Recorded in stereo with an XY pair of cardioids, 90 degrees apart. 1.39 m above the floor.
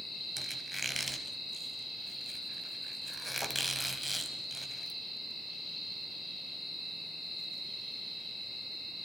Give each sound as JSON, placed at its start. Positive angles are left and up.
{"t": 0.4, "sound": "a squeak", "azimuth_deg": 0, "distance_m": 6.0}